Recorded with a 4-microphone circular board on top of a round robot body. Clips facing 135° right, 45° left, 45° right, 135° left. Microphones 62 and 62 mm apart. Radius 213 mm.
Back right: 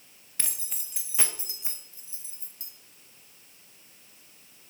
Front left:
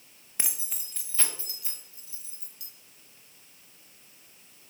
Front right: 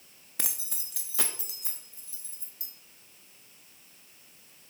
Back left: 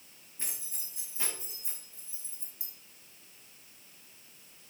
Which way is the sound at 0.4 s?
25° right.